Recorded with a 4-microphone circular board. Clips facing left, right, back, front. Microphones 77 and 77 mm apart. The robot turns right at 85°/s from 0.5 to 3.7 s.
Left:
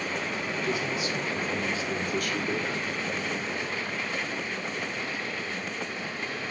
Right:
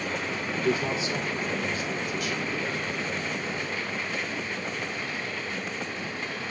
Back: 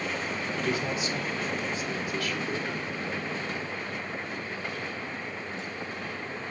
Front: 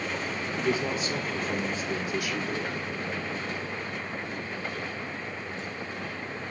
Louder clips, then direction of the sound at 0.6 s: Right 5 dB, front 3 dB; 70° right.